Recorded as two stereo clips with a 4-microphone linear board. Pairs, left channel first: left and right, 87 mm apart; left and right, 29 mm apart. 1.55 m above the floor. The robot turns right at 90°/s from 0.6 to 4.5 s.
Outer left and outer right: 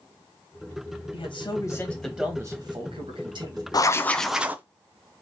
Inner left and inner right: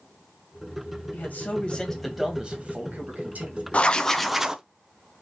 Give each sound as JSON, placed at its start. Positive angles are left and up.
{"t": 1.1, "sound": "a man speaking", "azimuth_deg": 95, "distance_m": 1.7}
{"t": 3.7, "sound": "writing", "azimuth_deg": 130, "distance_m": 0.5}